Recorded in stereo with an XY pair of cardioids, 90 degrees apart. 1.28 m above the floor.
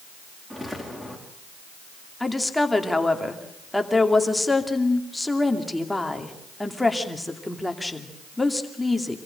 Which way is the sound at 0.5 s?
15° right.